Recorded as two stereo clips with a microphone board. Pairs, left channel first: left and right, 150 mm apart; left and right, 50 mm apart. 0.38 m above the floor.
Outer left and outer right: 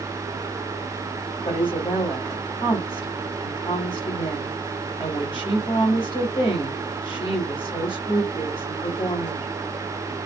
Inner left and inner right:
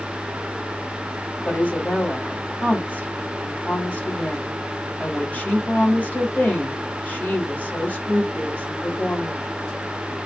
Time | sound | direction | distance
1.4 | a woman speaking | 35° left (ahead or behind) | 1.3 m